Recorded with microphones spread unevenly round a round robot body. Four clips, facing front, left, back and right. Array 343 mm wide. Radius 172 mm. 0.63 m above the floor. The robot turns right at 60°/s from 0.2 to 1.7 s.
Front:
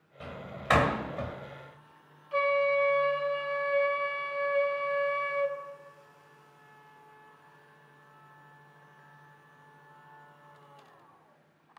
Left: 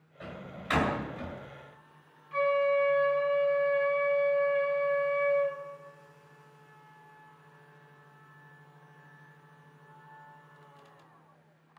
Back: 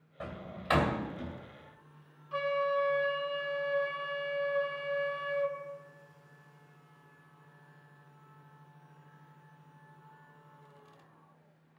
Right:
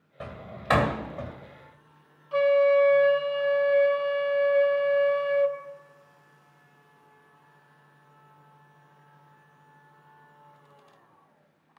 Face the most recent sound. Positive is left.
turn(degrees=-90)